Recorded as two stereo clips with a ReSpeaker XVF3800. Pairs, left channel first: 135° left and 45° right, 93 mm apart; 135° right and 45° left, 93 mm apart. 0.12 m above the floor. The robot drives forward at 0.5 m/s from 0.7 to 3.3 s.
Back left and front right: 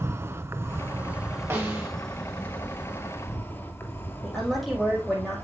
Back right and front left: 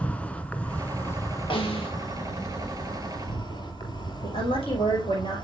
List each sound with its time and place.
0.0 s an insect: 75° right, 0.8 m; by 5.4 s 160° right, 1.4 m
1.5 s a snare drum: 110° right, 2.5 m; by 1.9 s 115° right, 2.5 m
4.2 s a woman speaking: 135° right, 6 m